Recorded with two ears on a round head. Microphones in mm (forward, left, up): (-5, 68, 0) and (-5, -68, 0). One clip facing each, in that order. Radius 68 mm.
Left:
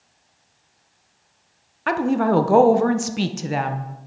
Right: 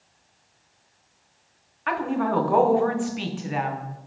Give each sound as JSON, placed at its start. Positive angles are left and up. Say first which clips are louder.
{"t": 1.9, "sound": "a woman speaking", "louder": "left 5 dB", "side_deg": 50, "distance_m": 0.8}